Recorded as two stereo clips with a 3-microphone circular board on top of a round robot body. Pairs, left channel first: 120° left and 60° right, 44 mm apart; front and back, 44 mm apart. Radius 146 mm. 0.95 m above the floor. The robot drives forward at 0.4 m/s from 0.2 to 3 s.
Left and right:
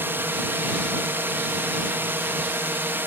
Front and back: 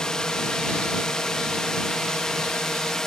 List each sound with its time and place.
0.0 s a drone: 75° right